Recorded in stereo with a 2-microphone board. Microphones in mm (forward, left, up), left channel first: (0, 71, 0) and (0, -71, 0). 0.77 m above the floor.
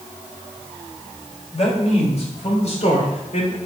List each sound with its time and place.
1.5 s a man speaking: 50° left (ahead or behind), 4 m; by 3.6 s 55° left (ahead or behind), 3 m